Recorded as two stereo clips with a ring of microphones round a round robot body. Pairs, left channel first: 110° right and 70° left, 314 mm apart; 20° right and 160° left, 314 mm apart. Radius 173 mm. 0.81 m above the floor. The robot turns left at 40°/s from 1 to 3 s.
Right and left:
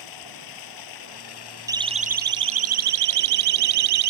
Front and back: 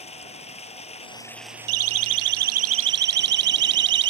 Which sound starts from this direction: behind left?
A siren, at 1.7 s.